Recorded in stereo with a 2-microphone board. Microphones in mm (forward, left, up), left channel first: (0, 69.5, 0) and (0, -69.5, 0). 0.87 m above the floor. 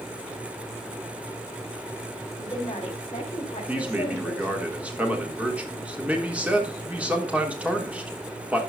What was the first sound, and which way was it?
A woman speaking, 30° left (ahead or behind).